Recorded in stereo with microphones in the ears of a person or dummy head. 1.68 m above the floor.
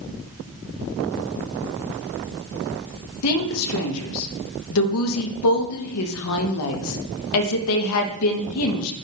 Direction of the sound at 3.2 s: 85° left.